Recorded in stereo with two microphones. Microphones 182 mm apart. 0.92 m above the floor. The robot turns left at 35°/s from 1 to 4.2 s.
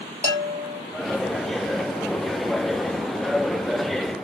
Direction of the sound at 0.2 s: 60° right (ahead or behind).